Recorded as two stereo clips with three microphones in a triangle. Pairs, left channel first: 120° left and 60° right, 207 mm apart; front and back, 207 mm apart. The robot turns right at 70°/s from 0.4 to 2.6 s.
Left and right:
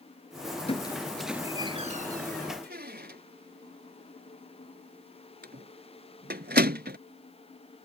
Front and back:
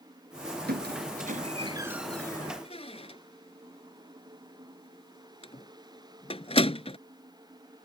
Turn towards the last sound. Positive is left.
turn(degrees=-55)